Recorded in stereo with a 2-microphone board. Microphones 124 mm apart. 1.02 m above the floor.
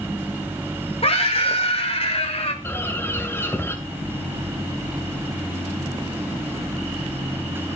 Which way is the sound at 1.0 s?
55° left (ahead or behind).